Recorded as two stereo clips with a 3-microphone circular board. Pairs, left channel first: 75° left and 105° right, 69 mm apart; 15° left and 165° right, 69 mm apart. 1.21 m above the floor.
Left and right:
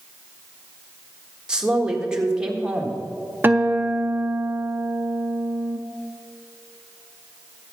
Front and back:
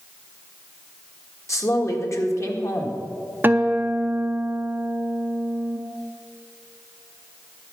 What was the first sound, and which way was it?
A woman speaking, 25° right.